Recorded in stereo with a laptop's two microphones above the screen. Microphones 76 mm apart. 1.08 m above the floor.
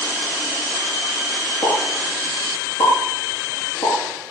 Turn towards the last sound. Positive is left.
turn(degrees=55)  # may be behind; listen again after turning